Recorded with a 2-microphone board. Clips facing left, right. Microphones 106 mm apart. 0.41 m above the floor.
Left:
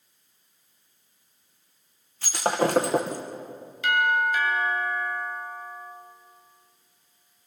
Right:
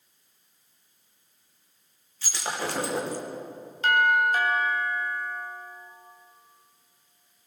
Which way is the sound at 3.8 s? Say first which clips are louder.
Right 1 dB; 45° right (ahead or behind).